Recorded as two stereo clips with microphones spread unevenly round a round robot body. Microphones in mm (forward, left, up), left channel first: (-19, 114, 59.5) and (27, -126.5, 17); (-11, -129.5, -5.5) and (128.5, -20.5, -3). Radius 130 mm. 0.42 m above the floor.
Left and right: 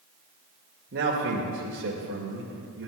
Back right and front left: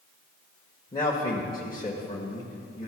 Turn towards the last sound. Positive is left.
turn(degrees=-85)